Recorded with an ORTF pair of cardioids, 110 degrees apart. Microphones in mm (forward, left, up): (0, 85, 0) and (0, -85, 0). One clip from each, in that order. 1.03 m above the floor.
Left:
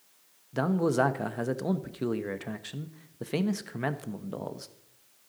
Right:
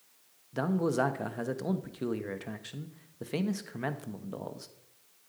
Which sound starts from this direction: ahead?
A man speaking, at 0.5 s.